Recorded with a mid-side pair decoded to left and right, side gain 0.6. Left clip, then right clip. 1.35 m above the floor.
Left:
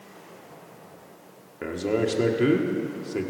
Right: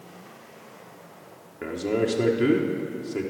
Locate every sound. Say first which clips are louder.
1.6 s a man speaking: even; 10° left, 1.4 m